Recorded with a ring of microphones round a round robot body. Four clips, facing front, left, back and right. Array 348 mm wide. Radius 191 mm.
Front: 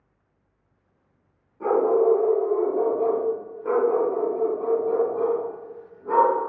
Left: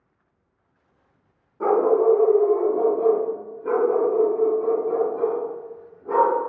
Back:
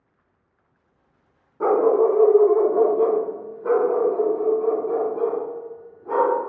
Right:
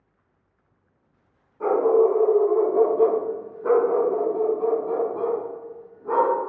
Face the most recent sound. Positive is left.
turn(degrees=-75)